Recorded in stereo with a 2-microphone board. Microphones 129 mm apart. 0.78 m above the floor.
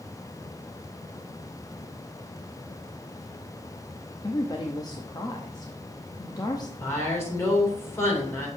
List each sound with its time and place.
4.2 s a woman speaking: 30° left (ahead or behind), 0.8 m
6.8 s a woman speaking: 20° left (ahead or behind), 3 m